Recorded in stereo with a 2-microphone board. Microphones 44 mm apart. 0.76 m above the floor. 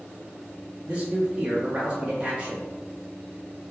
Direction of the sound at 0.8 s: 25° right (ahead or behind).